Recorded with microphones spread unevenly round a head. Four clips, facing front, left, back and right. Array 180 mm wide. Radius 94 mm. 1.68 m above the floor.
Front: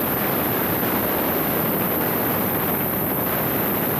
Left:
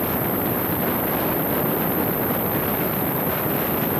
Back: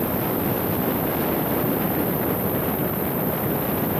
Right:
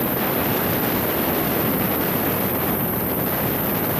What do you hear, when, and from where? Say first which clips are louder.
0.0 s an insect: right 1 dB, front 1 dB; 100° left, 1.0 m